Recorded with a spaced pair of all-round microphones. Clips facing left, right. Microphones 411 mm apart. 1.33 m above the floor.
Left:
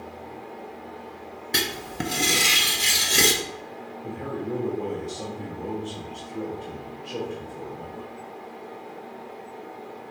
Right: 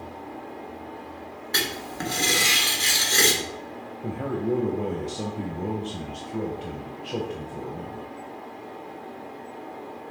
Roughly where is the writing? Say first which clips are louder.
Left 2 dB; left.